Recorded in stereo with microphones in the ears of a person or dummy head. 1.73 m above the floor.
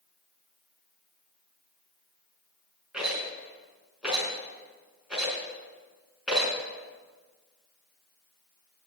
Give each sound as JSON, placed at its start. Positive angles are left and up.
{"t": 2.9, "sound": "a rattle", "side_deg": -5, "distance_m": 4.0}